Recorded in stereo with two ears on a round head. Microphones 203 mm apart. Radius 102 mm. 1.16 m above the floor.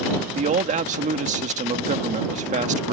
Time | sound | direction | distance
0.3 | a man speaking | 35° right (ahead or behind) | ?